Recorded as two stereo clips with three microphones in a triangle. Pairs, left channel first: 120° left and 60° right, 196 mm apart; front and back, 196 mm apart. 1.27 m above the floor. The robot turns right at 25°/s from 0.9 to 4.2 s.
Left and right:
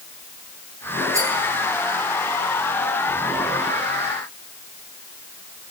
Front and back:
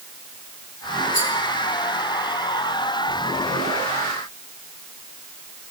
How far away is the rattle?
About 5 m.